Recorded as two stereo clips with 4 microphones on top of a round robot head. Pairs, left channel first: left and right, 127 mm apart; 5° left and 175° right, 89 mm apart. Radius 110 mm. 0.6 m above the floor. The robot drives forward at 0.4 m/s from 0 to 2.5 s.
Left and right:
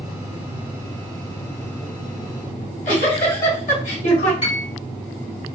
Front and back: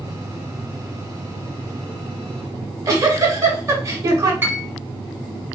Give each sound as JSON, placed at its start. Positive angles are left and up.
{"t": 2.6, "sound": "a giggle", "azimuth_deg": 130, "distance_m": 1.5}
{"t": 4.4, "sound": "a piano", "azimuth_deg": 125, "distance_m": 1.9}